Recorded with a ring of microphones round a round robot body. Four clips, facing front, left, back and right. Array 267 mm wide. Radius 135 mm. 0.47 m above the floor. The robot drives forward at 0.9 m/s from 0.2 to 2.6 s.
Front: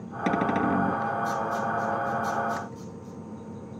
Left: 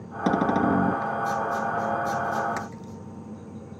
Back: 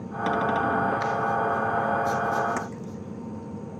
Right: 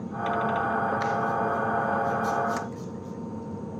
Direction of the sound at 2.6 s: 165° left.